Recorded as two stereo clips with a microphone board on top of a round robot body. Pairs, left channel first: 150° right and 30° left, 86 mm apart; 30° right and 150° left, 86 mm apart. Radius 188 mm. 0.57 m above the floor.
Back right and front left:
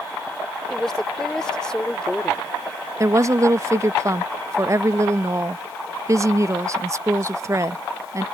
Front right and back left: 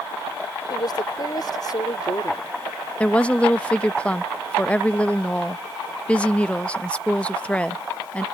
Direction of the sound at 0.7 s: 65° right.